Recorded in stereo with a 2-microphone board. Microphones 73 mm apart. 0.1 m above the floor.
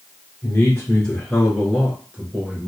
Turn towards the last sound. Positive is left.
turn(degrees=-25)  # may be behind; listen again after turning